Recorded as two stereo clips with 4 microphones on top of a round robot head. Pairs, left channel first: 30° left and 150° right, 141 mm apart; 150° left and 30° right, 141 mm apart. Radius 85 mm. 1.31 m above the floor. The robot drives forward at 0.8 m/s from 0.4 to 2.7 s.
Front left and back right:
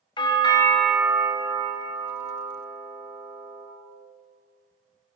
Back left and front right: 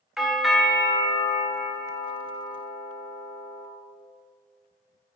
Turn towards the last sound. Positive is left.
turn(degrees=170)